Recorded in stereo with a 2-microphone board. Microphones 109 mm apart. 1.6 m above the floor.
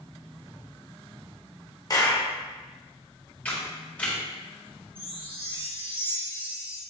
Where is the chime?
55° right (ahead or behind), 1.7 m.